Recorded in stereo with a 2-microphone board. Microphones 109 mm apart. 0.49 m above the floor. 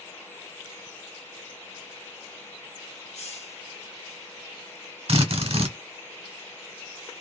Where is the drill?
60° right (ahead or behind), 1.0 m.